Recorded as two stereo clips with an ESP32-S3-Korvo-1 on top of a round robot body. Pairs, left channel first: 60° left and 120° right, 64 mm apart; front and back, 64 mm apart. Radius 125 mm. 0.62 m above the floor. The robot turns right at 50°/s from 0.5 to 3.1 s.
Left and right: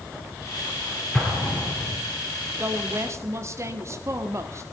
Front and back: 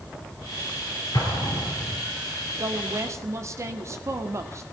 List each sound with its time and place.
1.1 s an explosion: 15° right, 6 m; by 2.0 s 30° left, 6 m
2.5 s a woman speaking: straight behind, 2 m; by 4.6 s 155° right, 2 m